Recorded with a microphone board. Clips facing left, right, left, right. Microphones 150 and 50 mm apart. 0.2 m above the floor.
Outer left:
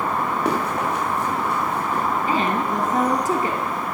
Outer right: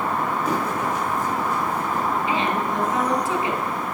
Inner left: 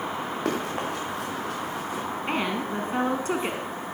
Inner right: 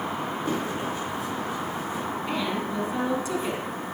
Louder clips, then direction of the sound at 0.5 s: Outer left 1 dB, inner left 2 dB; 90° left.